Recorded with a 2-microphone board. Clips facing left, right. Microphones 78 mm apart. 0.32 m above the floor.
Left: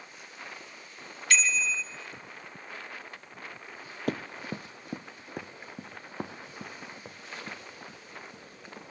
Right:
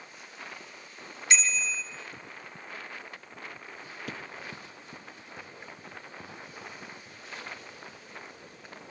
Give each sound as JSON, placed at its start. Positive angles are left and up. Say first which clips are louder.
{"t": 1.3, "sound": "a bicycle bell", "louder": "left 1 dB", "side_deg": -20, "distance_m": 2.5}
{"t": 4.1, "sound": "running footsteps", "louder": "left 9 dB", "side_deg": 50, "distance_m": 0.5}